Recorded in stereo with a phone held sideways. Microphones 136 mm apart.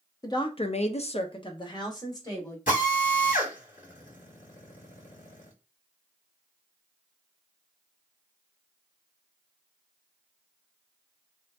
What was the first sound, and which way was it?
A woman speaking, 25° left (ahead or behind).